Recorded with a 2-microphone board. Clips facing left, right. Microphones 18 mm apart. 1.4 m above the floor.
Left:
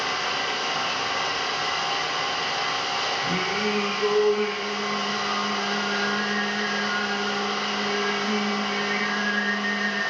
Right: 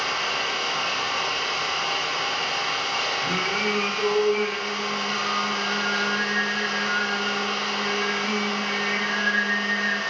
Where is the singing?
55° right (ahead or behind), 0.6 m.